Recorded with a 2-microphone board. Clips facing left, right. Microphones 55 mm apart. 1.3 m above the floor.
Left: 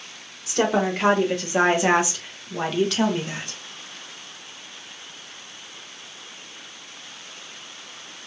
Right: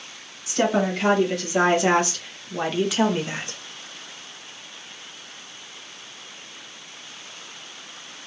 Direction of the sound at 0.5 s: 40° left (ahead or behind).